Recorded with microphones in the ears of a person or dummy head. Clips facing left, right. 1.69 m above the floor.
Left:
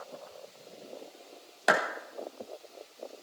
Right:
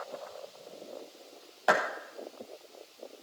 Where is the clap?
35° left (ahead or behind), 4.5 m.